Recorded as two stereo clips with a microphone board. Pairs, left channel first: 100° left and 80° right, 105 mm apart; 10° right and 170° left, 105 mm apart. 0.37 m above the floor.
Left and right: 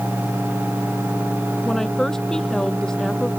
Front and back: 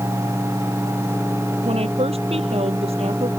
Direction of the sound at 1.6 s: 175° right.